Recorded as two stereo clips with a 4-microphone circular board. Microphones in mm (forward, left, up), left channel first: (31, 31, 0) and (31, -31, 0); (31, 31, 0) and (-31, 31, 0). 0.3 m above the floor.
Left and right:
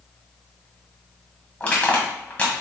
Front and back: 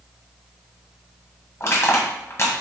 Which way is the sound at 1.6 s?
25° left.